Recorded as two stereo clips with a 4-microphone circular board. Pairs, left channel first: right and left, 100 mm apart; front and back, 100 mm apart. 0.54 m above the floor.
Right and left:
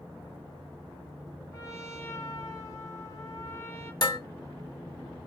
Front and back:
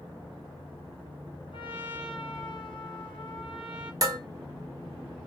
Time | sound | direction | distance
1.5 | a trumpet | 30° right | 1.6 m
4.0 | dishes clattering | 135° right | 1.2 m